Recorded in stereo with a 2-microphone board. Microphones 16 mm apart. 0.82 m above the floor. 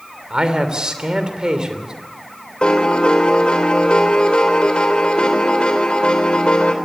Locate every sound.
0.3 s a man speaking: 50° right (ahead or behind), 3 m
2.6 s a piano: 75° left (ahead or behind), 2.5 m